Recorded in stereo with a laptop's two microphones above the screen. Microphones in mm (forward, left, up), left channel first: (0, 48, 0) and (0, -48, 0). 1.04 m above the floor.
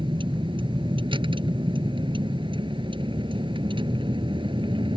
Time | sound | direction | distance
0.0 | a vehicle | 60° right (ahead or behind) | ?